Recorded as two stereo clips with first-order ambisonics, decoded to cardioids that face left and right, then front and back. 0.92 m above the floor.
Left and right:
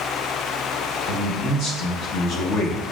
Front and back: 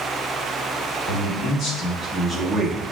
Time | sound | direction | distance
1.1 | a man speaking | 40° left | 1.2 m